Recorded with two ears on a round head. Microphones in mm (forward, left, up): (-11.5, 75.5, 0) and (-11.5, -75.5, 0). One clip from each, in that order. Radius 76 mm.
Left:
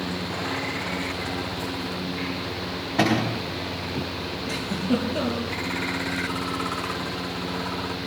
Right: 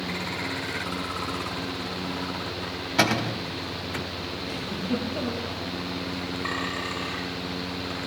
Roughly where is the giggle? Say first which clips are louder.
Left 5 dB; left.